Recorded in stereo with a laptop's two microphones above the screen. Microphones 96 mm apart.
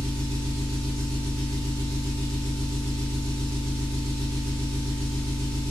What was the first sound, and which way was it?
An engine running, 15° left (ahead or behind).